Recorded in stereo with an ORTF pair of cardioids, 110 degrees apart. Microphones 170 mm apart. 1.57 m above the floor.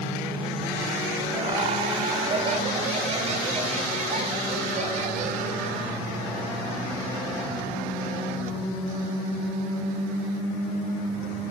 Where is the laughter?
30° right, 7.5 m; by 5.8 s 50° right, 6.5 m.